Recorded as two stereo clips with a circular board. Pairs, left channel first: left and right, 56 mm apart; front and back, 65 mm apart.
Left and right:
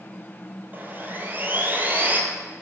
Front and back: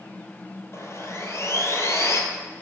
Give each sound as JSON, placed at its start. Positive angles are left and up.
{"t": 0.7, "sound": "sawing", "azimuth_deg": -40, "distance_m": 1.1}